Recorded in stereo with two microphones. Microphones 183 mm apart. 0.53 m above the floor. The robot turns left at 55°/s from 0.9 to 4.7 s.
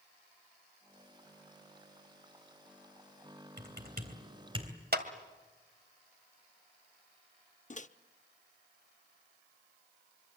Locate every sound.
3.6 s typing on a keyboard: 70° right (ahead or behind), 3 m; by 4.7 s 20° right (ahead or behind), 3 m
4.9 s a clap: 60° right (ahead or behind), 2.0 m
7.7 s a microwave: 45° left (ahead or behind), 0.7 m